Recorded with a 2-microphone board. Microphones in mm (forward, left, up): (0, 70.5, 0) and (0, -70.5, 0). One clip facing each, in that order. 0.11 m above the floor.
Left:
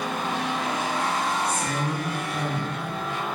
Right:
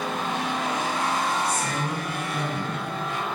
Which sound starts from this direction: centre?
A woman speaking, at 1.4 s.